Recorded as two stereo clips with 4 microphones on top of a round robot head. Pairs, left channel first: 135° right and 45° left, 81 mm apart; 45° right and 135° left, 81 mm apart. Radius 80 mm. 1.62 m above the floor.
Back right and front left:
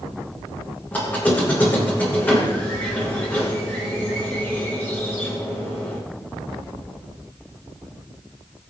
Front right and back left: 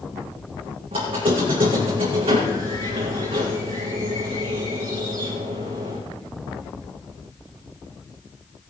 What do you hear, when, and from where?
0.9 s a squeak: 155° left, 4.5 m